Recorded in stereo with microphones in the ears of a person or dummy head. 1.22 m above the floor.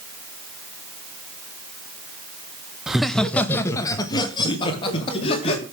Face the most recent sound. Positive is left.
turn(degrees=35)  # may be behind; listen again after turning